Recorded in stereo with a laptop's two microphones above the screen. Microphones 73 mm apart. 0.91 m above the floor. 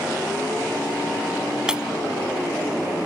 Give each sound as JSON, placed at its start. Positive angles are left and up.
{"t": 1.7, "sound": "breaking glass", "side_deg": -10}